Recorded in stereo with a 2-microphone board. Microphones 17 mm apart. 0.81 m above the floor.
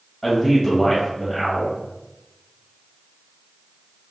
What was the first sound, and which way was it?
A man speaking, 25° left (ahead or behind).